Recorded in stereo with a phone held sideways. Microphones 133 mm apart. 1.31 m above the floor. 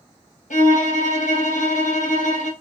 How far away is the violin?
About 1.3 m.